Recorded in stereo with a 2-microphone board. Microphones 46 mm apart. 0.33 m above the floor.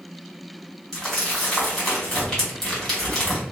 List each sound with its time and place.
0.9 s crumpling: centre (ahead or behind), 1.7 m